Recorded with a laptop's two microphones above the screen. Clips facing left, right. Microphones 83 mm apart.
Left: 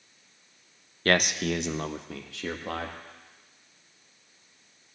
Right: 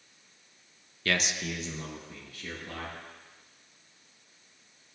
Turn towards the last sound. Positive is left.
turn(degrees=80)